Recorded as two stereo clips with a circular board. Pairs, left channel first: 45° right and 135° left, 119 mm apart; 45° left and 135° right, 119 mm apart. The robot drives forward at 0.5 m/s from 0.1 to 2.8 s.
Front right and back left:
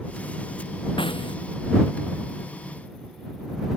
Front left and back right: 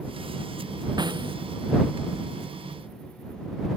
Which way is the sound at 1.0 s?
85° right.